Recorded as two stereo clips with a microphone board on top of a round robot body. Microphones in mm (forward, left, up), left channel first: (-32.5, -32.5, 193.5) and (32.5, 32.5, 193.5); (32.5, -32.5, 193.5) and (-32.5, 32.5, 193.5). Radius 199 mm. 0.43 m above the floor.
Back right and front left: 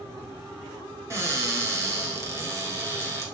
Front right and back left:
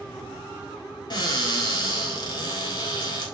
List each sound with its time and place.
1.1 s a cupboard door: 10° right, 3.5 m